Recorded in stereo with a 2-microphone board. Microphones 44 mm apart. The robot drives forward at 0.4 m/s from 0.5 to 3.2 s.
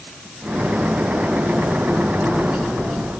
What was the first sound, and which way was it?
Only background noise.